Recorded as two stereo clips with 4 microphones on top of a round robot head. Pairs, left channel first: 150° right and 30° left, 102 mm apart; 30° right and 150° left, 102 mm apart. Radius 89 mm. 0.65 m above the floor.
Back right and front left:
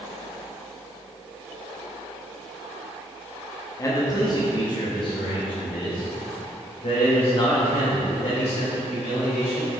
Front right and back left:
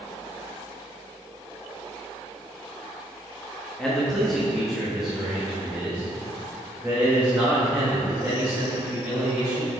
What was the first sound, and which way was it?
A man speaking, 110° right.